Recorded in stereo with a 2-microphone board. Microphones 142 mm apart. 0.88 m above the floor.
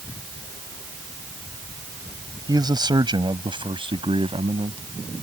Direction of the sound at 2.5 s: 30° right (ahead or behind).